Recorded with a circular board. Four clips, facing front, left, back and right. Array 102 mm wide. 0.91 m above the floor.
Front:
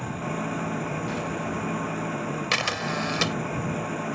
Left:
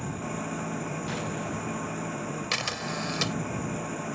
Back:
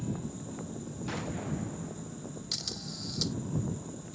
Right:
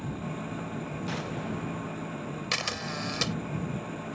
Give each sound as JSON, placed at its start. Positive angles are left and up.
{"t": 0.0, "sound": "an engine running", "azimuth_deg": 15}
{"t": 2.5, "sound": "a camera shutter", "azimuth_deg": 0}